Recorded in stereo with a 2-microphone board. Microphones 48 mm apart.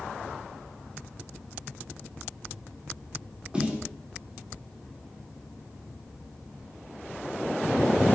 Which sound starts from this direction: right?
A snare drum, at 3.5 s.